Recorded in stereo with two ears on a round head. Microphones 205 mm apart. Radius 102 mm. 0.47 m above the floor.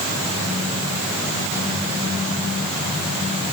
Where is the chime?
I don't hear a chime.